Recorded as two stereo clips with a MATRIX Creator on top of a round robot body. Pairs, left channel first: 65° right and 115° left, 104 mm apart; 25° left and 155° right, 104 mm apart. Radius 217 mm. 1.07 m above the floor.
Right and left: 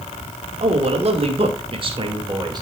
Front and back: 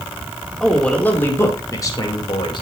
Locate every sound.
0.6 s a man speaking: 105° left, 2.5 m; by 2.6 s 65° left, 3 m